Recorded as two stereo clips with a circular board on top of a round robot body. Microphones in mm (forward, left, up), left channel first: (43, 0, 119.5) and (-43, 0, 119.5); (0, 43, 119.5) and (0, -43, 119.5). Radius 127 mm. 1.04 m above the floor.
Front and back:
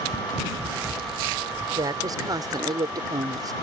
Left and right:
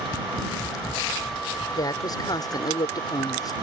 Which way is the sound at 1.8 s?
135° left.